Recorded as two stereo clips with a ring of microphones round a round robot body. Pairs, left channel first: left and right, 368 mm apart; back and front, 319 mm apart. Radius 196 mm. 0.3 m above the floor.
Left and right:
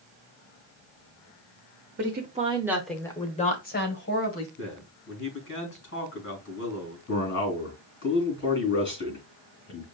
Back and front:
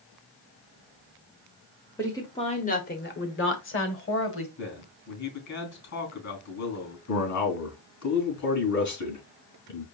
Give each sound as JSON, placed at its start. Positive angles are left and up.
{"t": 2.0, "sound": "a woman speaking", "azimuth_deg": -105, "distance_m": 1.2}
{"t": 4.6, "sound": "a man speaking", "azimuth_deg": 150, "distance_m": 3.5}
{"t": 7.1, "sound": "a man speaking", "azimuth_deg": 150, "distance_m": 3.5}